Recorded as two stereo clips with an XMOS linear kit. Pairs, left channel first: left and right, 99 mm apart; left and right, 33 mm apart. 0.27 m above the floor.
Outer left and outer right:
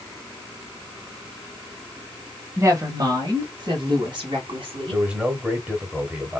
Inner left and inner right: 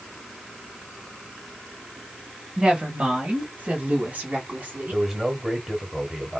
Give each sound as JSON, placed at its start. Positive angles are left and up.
{"t": 2.6, "sound": "a woman speaking", "side_deg": -25, "distance_m": 0.9}
{"t": 4.9, "sound": "a man speaking", "side_deg": -10, "distance_m": 1.2}